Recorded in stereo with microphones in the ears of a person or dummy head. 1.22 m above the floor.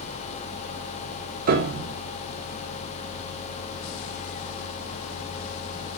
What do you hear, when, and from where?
1.5 s a piano: 50° right (ahead or behind), 1.3 m